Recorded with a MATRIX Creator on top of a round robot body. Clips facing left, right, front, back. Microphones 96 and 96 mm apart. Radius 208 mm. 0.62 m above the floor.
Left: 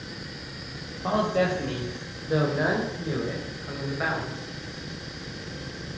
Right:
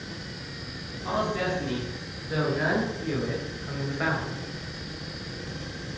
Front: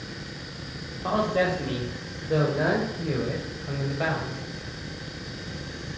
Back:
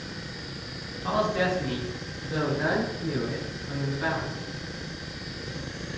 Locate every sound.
1.0 s a man speaking: 55° left, 3.5 m; by 4.4 s straight ahead, 3.5 m